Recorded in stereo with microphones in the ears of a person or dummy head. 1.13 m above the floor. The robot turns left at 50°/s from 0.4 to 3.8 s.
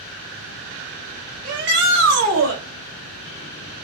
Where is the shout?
50° right, 2.5 m; by 2.6 s 105° right, 2.5 m.